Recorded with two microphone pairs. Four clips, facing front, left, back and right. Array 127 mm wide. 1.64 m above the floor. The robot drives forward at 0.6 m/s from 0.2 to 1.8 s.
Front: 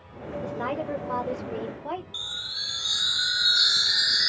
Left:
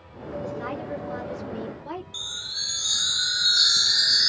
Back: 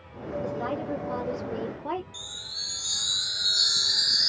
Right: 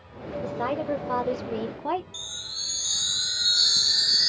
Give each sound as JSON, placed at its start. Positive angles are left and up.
{"t": 0.4, "sound": "a woman speaking", "azimuth_deg": -45, "distance_m": 1.1}
{"t": 2.1, "sound": "a chime", "azimuth_deg": 45, "distance_m": 0.6}